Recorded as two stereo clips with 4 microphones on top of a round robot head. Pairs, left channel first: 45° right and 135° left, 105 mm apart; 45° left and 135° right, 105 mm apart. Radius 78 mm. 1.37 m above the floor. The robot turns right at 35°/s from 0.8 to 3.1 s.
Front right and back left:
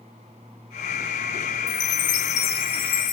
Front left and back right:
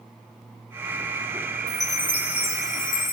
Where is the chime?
45° right, 0.7 m; by 3.1 s 5° left, 0.7 m.